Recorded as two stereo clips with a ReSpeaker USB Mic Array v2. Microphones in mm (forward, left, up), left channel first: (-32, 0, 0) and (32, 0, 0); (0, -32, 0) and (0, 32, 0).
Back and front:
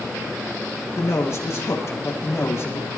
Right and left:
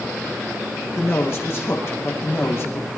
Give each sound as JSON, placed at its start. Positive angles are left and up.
{"t": 1.0, "sound": "a man speaking", "azimuth_deg": -135, "distance_m": 5.5}